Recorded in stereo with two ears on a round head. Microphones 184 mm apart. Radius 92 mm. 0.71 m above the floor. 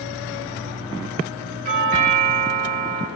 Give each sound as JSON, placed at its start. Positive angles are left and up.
{"t": 1.6, "sound": "a doorbell", "side_deg": -45, "distance_m": 4.5}